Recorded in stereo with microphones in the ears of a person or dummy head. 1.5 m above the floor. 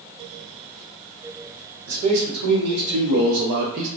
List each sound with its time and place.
1.9 s a man speaking: 70° right (ahead or behind), 1.2 m; by 3.9 s 45° right (ahead or behind), 0.6 m